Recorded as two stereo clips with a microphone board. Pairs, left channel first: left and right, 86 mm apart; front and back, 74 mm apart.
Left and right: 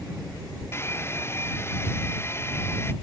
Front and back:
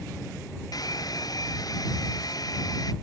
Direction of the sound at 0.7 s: 30° left.